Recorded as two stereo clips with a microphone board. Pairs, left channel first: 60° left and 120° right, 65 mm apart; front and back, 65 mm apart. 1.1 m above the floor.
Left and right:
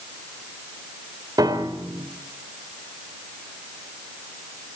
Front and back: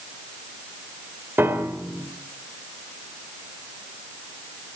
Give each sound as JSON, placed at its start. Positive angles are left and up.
{"t": 1.4, "sound": "a piano", "azimuth_deg": -120, "distance_m": 2.5}